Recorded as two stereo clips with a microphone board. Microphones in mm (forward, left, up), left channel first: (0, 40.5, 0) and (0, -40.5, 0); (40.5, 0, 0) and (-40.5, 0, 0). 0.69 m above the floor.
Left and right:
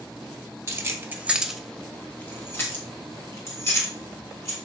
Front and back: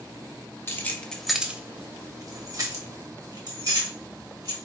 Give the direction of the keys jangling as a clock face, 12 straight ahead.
2 o'clock.